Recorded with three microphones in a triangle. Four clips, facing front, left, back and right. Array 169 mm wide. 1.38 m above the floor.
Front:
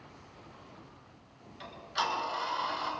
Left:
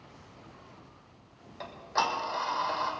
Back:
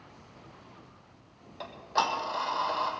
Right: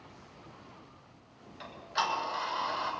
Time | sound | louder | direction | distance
1.6 | ticking | left 3 dB, back 5 dB | 150° left | 1.8 m